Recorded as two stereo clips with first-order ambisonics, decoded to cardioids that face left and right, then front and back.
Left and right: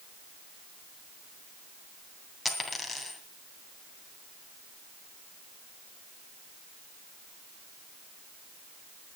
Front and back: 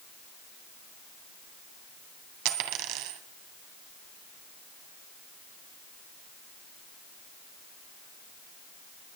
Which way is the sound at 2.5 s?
175° left.